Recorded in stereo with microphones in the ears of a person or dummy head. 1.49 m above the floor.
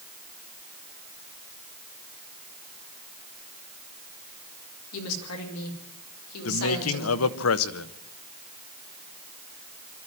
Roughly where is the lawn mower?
No lawn mower in this recording.